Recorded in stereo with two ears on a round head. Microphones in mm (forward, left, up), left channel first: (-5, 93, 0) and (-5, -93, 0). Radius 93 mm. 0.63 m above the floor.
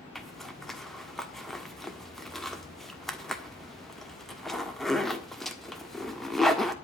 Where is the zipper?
Centre (ahead or behind), 1.5 m.